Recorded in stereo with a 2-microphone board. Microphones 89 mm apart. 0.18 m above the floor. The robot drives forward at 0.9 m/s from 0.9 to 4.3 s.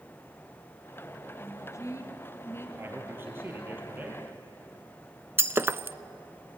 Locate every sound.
1.4 s a woman speaking: 40° left (ahead or behind), 2 m; by 2.7 s 30° left (ahead or behind), 2.5 m
2.8 s a man speaking: 25° right (ahead or behind), 4 m; by 4.2 s 20° right (ahead or behind), 5 m
5.4 s breaking glass: 25° right (ahead or behind), 0.5 m